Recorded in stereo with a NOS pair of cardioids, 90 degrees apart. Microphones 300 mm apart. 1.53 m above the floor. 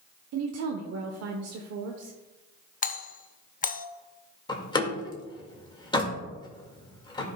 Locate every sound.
0.3 s a woman speaking: 65° right, 0.8 m
2.8 s a doorbell: 30° left, 0.6 m
4.5 s a door slam: 15° left, 1.9 m